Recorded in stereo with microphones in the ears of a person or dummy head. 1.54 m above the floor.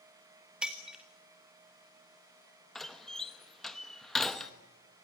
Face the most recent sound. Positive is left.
turn(degrees=5)  # may be behind; listen again after turning